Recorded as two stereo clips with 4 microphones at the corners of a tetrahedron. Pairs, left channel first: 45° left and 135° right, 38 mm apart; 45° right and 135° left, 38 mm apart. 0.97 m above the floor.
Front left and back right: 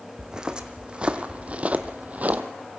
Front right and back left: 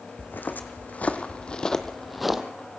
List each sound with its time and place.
0.2 s footsteps: 65° right, 2 m; by 2.4 s 145° right, 1.3 m